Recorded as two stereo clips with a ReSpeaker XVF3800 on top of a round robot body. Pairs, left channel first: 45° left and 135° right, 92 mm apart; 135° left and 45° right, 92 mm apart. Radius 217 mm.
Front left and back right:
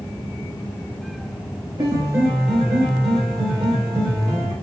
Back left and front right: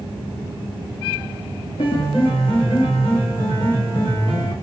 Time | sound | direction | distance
1.8 | a piano | 175° left | 0.9 m